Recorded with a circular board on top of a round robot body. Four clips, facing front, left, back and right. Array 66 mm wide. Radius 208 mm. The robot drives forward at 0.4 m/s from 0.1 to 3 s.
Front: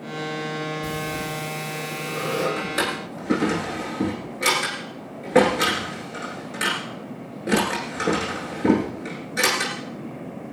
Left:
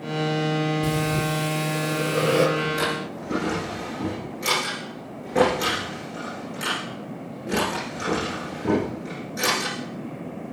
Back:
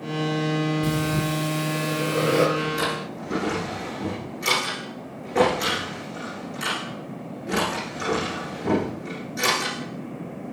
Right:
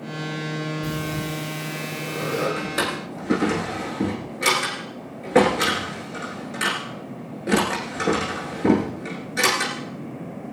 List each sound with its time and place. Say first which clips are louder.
0.8 s breathing: left 4 dB, back 4 dB; 140° left, 6 m; by 2.5 s 145° left, 6.5 m
2.6 s a drawer: left 1 dB, even; 50° right, 9 m